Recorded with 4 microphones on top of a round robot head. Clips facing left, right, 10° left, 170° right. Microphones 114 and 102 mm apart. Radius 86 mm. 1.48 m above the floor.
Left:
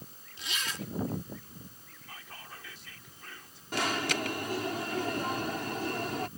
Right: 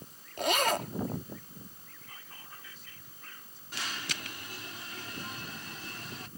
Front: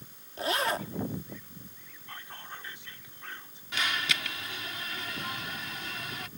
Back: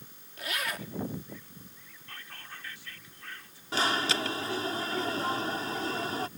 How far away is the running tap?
No running tap in this recording.